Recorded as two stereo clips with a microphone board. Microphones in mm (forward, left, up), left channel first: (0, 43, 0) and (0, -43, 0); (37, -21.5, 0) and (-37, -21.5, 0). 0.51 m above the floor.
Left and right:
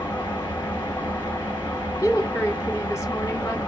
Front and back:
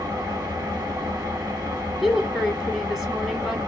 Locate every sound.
0.0 s an engine running: 155° left, 3.5 m
2.0 s a woman speaking: 105° left, 1.3 m